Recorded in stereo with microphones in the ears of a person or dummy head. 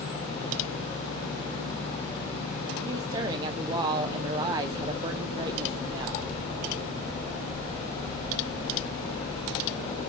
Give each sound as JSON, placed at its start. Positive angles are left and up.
{"t": 2.9, "sound": "a woman speaking", "side_deg": -20, "distance_m": 0.5}